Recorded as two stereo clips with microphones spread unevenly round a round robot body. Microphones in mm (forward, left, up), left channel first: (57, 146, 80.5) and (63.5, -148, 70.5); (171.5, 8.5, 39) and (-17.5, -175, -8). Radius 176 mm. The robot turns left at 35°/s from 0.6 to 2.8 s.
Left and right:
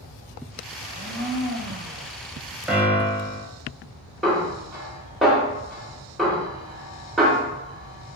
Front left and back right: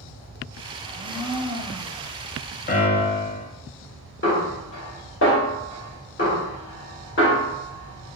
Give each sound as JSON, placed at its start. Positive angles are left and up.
{"t": 0.8, "sound": "a blender", "azimuth_deg": 165, "distance_m": 1.0}
{"t": 2.7, "sound": "a piano", "azimuth_deg": -5, "distance_m": 0.6}
{"t": 4.2, "sound": "a snare drum", "azimuth_deg": 0, "distance_m": 1.4}